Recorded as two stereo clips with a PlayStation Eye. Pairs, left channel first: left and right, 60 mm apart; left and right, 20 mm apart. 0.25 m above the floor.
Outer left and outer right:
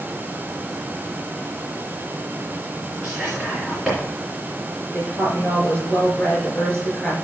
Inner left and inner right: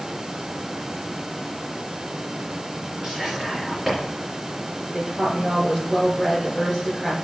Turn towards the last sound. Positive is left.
turn(degrees=25)  # may be behind; listen again after turning